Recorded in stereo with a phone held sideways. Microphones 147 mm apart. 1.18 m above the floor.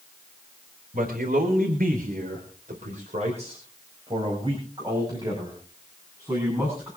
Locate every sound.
0.9 s a man speaking: 80° right, 3.5 m; by 6.9 s 20° right (ahead or behind), 8.5 m